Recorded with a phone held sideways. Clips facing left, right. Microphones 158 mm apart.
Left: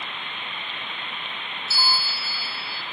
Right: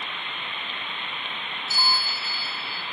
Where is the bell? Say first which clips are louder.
Even; 10° left (ahead or behind), 0.5 m.